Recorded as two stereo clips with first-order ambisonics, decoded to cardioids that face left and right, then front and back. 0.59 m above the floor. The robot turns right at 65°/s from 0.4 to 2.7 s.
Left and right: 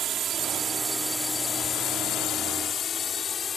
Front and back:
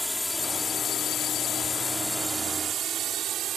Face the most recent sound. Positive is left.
turn(degrees=150)